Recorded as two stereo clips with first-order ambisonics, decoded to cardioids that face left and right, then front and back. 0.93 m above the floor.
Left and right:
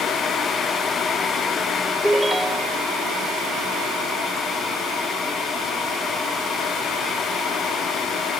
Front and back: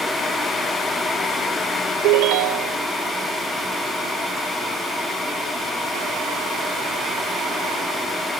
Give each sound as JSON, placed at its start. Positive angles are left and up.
{"t": 2.0, "sound": "a ringtone", "azimuth_deg": -175}